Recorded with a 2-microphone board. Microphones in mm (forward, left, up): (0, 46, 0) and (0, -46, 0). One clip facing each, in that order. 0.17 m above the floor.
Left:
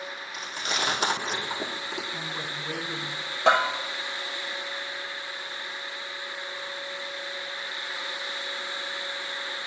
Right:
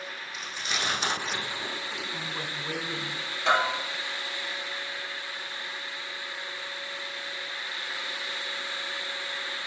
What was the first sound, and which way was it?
Chewing, 65° left (ahead or behind).